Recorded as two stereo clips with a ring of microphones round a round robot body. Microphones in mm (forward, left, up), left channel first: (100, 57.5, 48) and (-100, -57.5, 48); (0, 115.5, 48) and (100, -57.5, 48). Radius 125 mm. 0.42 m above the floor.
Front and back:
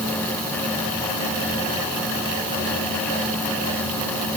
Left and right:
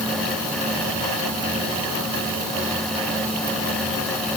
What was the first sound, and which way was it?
Only background noise.